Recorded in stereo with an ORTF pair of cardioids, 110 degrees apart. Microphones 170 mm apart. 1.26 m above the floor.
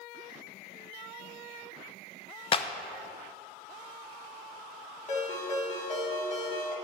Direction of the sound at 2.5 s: 35° left.